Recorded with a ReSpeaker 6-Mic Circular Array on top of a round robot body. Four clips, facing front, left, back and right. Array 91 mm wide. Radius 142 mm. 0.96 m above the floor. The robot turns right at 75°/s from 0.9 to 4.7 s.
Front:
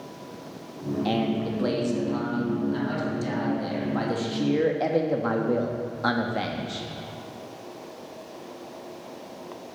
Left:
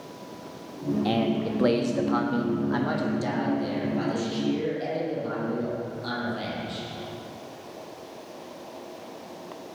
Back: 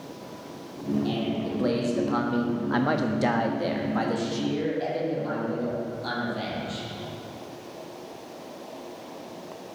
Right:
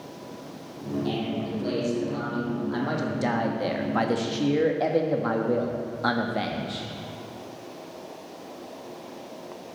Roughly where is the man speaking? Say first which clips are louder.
Left 5 dB, front 2 dB; ahead left.